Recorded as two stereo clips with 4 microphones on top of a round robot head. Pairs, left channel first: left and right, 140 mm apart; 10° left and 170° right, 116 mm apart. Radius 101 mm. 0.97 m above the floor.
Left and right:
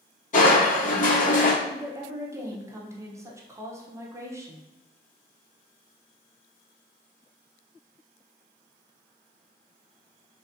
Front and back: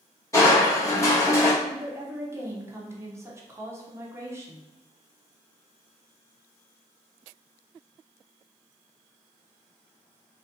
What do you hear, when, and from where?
0.3 s crushing: 70° left, 1.6 m
1.6 s a woman speaking: 135° right, 0.8 m